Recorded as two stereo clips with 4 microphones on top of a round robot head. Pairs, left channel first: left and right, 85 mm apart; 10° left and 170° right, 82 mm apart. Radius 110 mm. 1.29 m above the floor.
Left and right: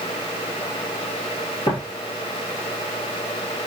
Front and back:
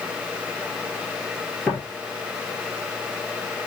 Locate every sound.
1.7 s footsteps: 95° left, 1.5 m